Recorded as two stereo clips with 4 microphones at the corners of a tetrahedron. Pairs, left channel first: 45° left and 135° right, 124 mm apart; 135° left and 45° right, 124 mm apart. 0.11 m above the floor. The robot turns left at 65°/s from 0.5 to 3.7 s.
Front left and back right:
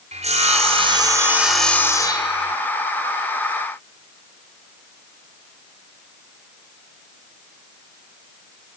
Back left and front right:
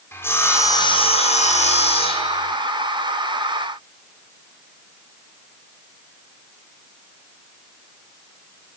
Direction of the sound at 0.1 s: 155° right.